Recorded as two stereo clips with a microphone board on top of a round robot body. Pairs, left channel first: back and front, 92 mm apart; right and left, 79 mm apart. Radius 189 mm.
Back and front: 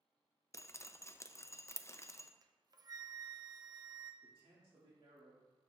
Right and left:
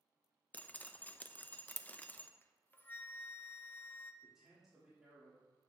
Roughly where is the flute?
Ahead right.